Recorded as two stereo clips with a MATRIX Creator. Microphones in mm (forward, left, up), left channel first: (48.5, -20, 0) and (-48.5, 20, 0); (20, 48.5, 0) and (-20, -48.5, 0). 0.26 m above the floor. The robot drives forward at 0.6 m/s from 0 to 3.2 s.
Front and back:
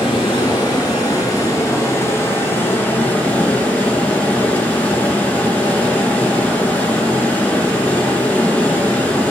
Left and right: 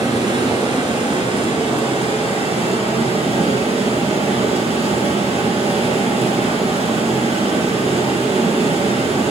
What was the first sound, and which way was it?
Running water, 65° right.